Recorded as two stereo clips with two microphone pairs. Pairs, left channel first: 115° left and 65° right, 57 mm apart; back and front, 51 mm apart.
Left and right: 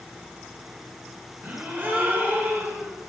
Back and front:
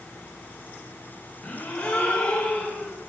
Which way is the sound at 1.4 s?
115° right.